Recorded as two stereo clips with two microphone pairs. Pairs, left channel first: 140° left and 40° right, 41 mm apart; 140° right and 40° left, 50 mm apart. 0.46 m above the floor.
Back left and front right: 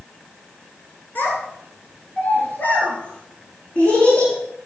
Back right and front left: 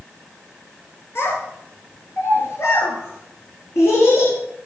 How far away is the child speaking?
About 3.5 m.